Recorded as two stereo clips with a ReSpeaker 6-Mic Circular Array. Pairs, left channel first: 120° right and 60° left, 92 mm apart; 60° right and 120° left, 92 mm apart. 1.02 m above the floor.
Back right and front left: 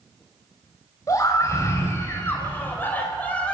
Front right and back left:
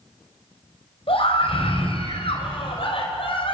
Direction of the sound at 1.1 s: 65° right.